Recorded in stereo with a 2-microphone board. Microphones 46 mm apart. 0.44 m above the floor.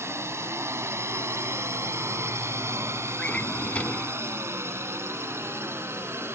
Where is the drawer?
30° left (ahead or behind).